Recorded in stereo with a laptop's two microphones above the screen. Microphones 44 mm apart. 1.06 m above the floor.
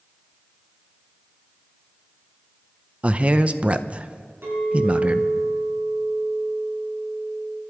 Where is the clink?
65° right (ahead or behind), 7.5 m.